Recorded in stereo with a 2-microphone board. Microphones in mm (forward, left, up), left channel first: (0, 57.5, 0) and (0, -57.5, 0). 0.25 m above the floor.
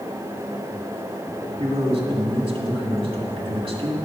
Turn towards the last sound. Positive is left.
turn(degrees=-50)  # may be behind; listen again after turning